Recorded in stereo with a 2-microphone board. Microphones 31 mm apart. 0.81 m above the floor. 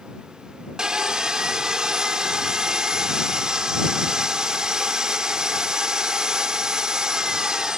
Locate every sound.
0.8 s sawing: 25° right (ahead or behind)